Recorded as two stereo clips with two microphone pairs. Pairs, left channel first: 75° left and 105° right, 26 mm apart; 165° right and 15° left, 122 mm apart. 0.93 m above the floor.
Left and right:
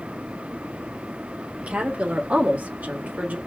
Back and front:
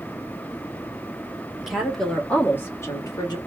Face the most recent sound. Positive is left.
turn(degrees=-115)